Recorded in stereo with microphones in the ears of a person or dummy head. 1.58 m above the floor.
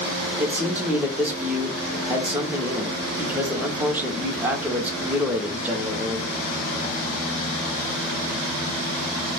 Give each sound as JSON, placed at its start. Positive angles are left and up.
{"t": 0.4, "sound": "a man speaking", "side_deg": -10, "distance_m": 0.6}